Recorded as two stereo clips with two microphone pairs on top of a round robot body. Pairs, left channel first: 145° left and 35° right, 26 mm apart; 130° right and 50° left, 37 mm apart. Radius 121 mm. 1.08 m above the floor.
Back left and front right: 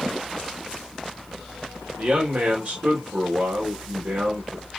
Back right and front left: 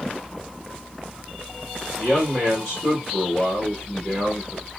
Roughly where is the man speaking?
Ahead right.